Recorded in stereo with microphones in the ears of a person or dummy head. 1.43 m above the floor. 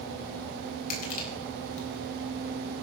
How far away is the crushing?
About 3.5 m.